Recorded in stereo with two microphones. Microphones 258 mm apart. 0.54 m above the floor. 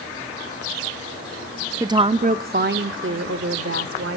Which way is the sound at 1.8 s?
10° right (ahead or behind).